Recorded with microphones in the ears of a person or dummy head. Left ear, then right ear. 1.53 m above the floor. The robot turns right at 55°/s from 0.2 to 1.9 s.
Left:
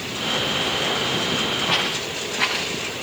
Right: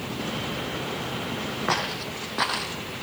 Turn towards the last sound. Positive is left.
turn(degrees=-55)  # may be behind; listen again after turning